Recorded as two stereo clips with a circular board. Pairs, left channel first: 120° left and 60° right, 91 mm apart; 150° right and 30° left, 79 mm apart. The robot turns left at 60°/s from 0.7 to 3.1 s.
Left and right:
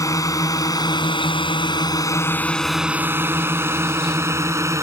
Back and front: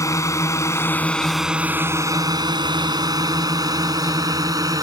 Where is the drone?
170° left; by 4.8 s 5° right.